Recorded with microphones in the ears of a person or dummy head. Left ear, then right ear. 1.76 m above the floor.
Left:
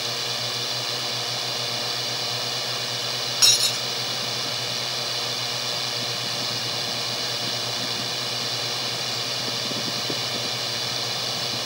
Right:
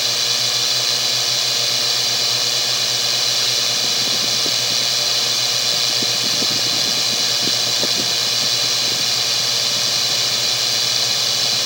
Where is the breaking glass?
35° left (ahead or behind).